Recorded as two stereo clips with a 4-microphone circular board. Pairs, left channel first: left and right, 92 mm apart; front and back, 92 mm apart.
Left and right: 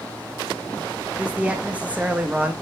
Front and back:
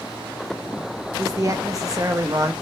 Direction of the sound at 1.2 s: 155° right.